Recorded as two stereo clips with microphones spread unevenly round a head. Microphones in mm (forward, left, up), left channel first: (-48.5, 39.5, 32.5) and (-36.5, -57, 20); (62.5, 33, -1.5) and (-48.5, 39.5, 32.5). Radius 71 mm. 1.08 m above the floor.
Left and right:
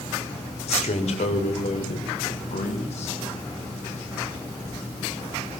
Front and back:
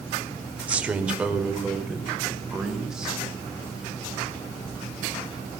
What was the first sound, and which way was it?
A man speaking, 95° left.